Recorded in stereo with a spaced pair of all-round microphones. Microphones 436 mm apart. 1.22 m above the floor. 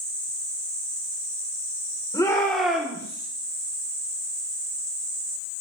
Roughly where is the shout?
Centre.